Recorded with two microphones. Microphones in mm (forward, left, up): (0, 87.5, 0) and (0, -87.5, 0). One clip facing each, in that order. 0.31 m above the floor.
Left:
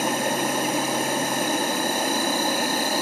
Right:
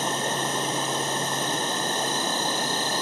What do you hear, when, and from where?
0.0 s an insect: 10° left (ahead or behind), 1.3 m